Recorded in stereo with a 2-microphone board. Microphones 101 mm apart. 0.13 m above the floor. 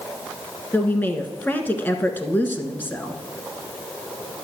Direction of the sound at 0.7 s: 15° left (ahead or behind).